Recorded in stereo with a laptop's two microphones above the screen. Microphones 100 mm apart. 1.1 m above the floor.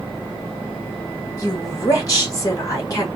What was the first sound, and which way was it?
A woman speaking, 35° left (ahead or behind).